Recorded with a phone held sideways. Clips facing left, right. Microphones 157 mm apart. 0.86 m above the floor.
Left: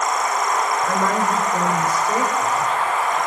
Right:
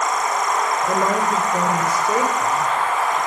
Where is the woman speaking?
20° right (ahead or behind), 3 m.